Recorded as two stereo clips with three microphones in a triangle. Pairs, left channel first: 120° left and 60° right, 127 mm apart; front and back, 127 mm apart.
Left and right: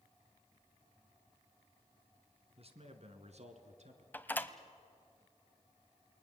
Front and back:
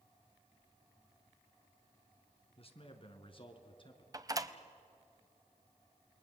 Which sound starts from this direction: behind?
A door slam, at 4.1 s.